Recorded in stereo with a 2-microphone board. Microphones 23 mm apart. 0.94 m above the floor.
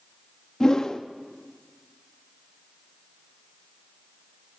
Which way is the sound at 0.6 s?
25° left (ahead or behind).